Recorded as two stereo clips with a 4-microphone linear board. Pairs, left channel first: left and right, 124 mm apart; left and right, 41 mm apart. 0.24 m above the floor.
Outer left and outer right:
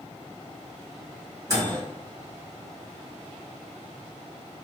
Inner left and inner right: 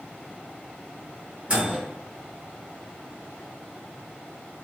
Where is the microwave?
30° right (ahead or behind), 1.1 m.